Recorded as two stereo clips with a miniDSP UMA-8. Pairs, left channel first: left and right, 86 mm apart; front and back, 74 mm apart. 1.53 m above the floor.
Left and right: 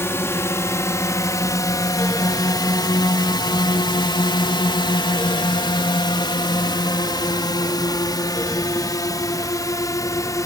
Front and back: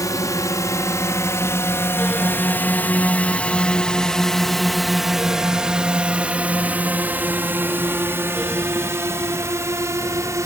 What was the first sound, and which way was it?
A drone, 30° left.